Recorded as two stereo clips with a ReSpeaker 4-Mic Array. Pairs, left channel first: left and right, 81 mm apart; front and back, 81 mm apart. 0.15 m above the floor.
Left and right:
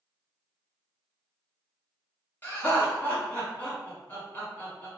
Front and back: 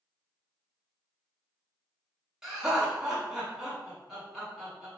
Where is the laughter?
110° left, 1.1 m.